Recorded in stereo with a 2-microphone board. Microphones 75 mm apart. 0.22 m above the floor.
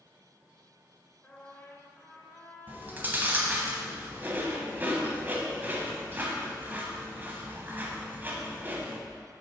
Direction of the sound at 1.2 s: 20° left (ahead or behind).